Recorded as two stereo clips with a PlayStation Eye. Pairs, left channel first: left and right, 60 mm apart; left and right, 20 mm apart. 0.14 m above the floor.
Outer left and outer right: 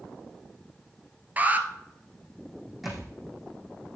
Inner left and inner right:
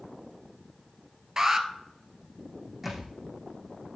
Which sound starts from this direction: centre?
A thud, at 2.8 s.